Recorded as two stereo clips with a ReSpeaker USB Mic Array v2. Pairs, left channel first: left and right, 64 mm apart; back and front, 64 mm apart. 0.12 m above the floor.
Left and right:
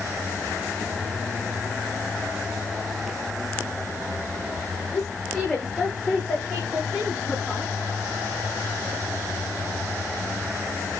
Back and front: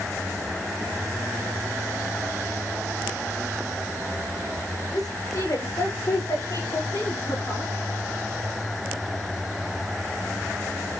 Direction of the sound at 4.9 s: 175° left.